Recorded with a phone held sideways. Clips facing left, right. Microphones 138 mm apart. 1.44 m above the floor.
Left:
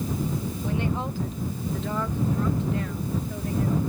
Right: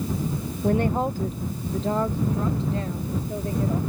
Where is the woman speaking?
50° right (ahead or behind); by 3.8 s 30° right (ahead or behind).